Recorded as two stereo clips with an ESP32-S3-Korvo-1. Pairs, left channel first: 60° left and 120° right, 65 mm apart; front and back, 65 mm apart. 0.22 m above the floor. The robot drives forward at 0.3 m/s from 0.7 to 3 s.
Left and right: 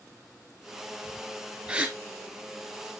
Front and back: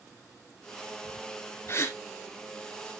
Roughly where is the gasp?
Ahead right.